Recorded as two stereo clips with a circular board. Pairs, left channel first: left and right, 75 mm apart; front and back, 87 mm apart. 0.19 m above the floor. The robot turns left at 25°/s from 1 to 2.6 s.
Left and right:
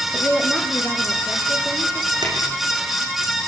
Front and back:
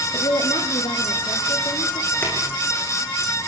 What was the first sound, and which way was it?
A woman speaking, 5° left.